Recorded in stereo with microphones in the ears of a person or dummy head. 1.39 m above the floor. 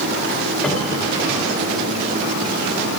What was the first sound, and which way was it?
A cupboard door, 10° left (ahead or behind).